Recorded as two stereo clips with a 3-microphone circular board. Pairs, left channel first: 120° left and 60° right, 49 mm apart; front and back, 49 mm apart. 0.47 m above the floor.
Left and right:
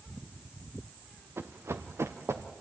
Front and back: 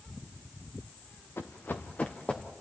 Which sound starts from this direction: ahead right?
Running footsteps, at 1.4 s.